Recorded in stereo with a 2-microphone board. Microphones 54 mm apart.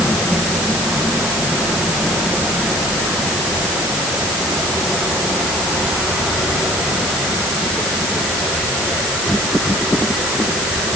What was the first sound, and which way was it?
Only background noise.